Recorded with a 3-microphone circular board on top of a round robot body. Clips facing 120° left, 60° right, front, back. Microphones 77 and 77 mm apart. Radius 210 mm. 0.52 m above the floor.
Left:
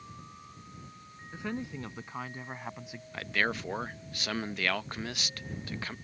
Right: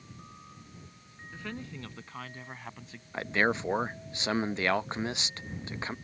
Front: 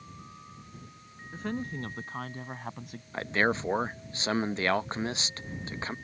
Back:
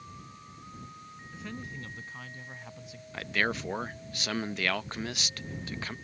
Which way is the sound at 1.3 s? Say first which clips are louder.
Left 4 dB, front 8 dB; 45° left.